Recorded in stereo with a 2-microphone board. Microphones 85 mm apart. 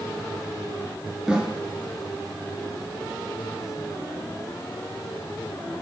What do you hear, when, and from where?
1.3 s a snare drum: 5° right (ahead or behind), 5 m